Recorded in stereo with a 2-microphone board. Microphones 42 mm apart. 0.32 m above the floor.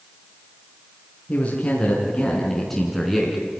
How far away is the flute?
No flute in this recording.